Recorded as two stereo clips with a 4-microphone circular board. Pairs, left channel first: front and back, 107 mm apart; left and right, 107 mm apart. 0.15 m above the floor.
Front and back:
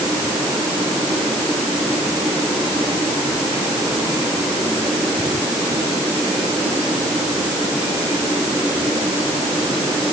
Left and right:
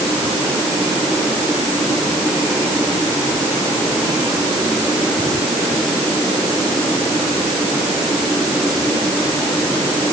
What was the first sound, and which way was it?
Only background noise.